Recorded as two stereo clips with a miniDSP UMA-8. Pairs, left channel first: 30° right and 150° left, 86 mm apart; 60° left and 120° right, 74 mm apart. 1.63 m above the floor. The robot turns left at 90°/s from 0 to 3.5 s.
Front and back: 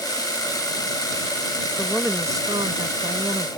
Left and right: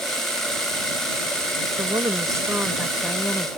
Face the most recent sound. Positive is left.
turn(degrees=90)